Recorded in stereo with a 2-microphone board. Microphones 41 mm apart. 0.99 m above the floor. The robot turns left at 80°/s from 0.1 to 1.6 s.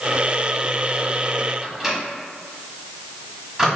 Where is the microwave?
5° right (ahead or behind), 1.4 m.